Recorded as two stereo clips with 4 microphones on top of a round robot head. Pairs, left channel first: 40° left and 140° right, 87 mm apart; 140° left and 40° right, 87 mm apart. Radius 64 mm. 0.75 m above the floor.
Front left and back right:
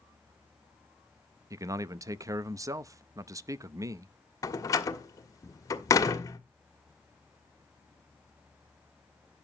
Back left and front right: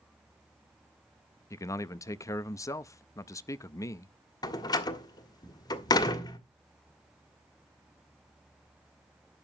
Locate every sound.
1.5 s a man speaking: straight behind, 0.6 m
4.4 s a door slam: 95° left, 1.7 m